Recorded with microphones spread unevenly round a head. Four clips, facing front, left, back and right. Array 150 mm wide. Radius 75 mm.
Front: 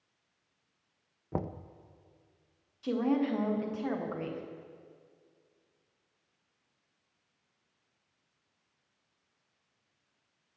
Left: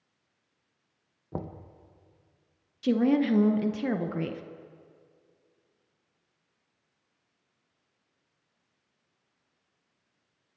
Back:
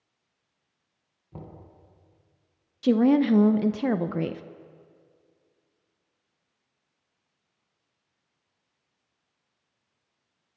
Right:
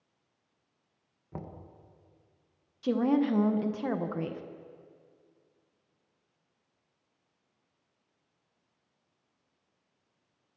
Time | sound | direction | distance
1.3 | knocking | 30° left | 0.6 m
2.8 | a woman speaking | 165° left | 0.6 m